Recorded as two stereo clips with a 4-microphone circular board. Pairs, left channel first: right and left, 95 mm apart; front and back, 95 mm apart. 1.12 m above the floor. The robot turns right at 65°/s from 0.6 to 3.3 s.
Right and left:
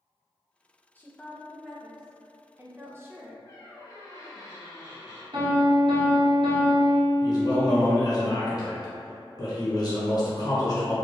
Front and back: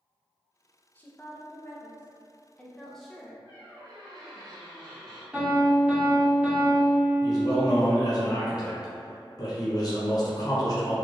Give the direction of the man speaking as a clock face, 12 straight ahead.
1 o'clock.